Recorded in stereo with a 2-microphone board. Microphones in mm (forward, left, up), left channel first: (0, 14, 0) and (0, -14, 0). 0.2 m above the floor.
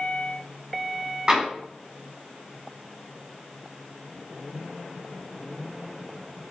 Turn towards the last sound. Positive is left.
turn(degrees=-25)  # may be behind; listen again after turning